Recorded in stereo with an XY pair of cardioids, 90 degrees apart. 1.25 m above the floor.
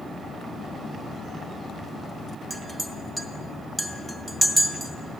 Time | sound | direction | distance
2.5 | a clink | 25° right | 1.0 m